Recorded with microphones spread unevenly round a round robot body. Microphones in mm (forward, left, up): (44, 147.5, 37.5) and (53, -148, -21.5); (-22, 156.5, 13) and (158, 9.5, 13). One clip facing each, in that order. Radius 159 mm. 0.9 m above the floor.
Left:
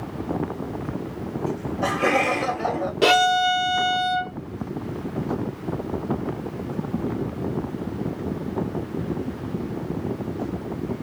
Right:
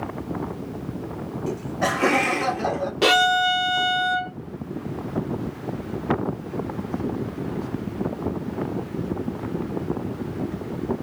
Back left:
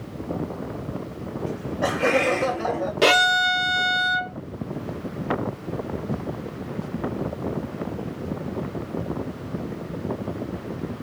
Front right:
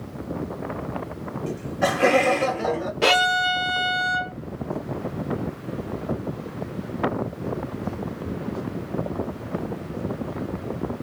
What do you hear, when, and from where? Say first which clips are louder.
1.5 s laughter: right 1 dB, front right 2 dB; 50° right, 1.3 m; by 2.9 s 75° right, 1.8 m
3.0 s a violin: left 2 dB, back left 3 dB; straight behind, 0.6 m